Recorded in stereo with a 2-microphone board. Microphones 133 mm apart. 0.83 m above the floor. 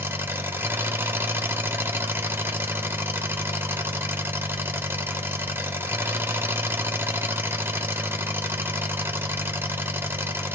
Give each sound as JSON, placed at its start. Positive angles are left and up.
{"t": 0.0, "sound": "an engine running", "side_deg": -15, "distance_m": 0.8}